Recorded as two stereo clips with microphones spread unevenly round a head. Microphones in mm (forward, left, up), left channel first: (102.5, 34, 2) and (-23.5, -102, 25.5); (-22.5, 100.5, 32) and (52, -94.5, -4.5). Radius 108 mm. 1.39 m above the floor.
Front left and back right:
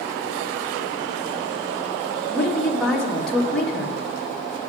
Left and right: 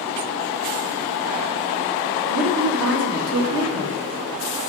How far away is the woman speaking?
About 2 m.